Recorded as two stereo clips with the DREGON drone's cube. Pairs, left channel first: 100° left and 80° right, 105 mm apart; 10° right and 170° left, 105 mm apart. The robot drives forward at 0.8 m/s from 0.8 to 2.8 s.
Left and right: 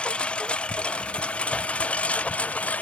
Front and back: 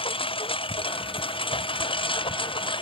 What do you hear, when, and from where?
0.0 s a lawn mower: 20° left; by 2.8 s 25° left